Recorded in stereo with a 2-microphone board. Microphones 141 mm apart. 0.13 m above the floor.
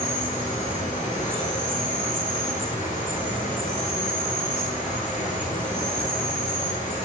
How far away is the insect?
About 9 m.